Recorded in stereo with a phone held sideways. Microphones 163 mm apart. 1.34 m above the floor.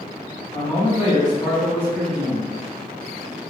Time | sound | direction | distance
0.5 | a man speaking | 40° left (ahead or behind) | 1.5 m